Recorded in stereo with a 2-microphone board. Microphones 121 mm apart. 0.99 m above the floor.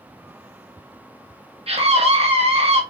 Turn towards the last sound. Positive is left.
turn(degrees=-55)  # may be behind; listen again after turning